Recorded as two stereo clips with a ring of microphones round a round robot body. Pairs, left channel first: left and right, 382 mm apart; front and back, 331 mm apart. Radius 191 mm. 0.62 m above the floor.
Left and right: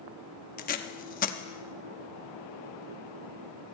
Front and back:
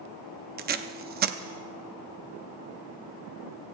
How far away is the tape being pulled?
About 0.7 m.